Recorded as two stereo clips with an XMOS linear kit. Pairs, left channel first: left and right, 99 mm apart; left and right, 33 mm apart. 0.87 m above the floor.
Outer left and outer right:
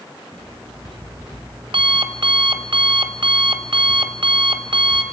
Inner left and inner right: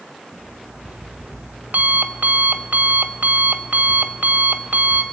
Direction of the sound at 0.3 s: 65° right (ahead or behind).